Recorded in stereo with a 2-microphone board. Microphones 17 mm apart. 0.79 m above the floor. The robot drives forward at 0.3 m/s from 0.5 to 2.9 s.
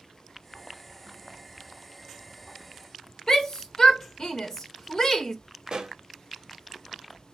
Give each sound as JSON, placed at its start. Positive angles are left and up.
{"t": 3.3, "sound": "a shout", "side_deg": 35, "distance_m": 0.7}
{"t": 5.7, "sound": "a pop", "side_deg": -45, "distance_m": 0.8}